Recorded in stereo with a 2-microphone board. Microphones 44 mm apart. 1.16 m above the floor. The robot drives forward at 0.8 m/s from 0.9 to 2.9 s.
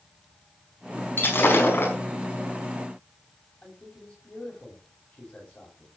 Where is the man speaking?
25° left (ahead or behind), 8.5 m.